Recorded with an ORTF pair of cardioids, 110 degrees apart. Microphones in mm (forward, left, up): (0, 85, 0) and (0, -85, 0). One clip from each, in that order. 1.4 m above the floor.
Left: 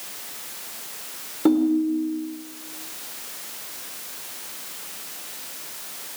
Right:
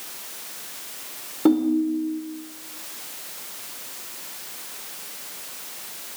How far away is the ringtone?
About 3 m.